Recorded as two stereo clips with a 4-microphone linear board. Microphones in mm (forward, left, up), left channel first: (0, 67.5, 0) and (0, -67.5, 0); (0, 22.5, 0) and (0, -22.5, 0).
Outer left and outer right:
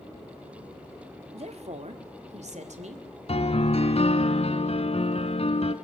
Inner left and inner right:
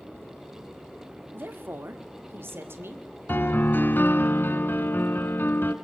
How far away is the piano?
About 1.2 m.